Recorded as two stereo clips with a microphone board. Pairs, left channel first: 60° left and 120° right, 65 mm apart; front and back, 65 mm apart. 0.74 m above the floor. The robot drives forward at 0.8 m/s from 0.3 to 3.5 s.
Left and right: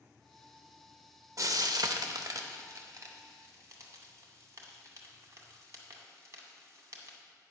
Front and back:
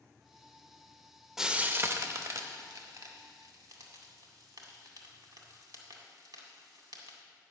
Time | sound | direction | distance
1.4 | frying | 95° right | 0.6 m